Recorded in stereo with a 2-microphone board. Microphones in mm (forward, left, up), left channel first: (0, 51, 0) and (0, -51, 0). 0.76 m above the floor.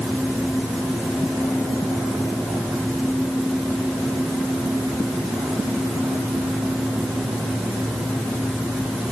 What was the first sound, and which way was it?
Only background noise.